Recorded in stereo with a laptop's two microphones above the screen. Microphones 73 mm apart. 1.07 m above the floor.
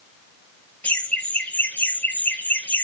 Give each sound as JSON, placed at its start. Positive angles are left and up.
{"t": 0.8, "sound": "laughter", "side_deg": 20, "distance_m": 1.0}